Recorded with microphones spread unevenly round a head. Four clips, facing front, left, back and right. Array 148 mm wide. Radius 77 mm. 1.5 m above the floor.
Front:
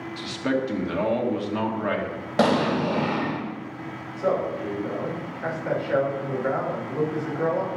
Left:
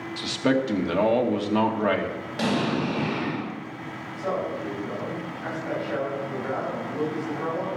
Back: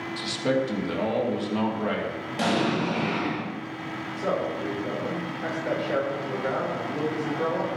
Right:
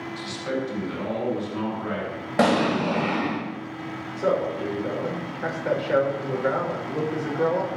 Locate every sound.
0.2 s a man speaking: 95° left, 2.5 m
2.4 s an explosion: 50° right, 3.5 m
4.2 s a man speaking: 90° right, 6 m